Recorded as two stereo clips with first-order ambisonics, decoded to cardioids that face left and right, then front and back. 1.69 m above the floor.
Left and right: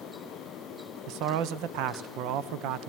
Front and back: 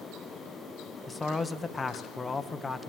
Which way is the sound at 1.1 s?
75° right.